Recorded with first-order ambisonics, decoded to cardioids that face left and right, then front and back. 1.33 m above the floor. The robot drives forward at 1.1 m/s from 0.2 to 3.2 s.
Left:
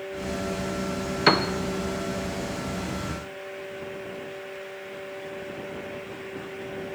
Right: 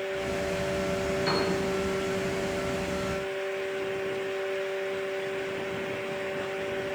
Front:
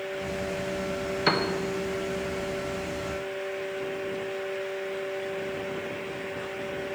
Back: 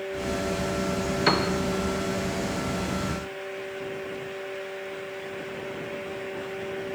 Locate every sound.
1.3 s a piano: 95° left, 0.5 m; by 1.5 s 125° left, 0.6 m